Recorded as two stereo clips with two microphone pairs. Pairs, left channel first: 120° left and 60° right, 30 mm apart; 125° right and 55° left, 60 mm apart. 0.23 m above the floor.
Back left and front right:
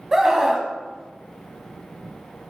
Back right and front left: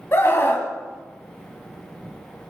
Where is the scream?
125° right, 1.2 m.